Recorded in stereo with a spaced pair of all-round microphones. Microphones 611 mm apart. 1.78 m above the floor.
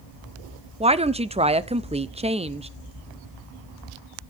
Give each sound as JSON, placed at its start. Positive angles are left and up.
{"t": 0.8, "sound": "a woman speaking", "side_deg": -10, "distance_m": 0.5}